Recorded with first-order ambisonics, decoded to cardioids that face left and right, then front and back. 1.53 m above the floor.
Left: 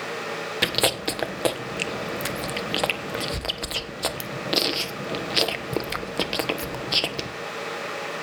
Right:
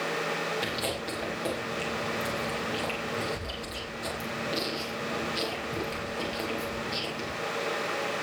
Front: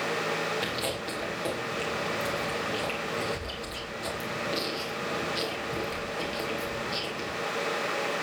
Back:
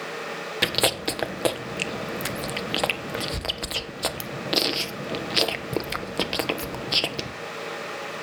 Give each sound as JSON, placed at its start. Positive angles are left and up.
{"t": 0.6, "sound": "chewing", "azimuth_deg": 135, "distance_m": 1.3}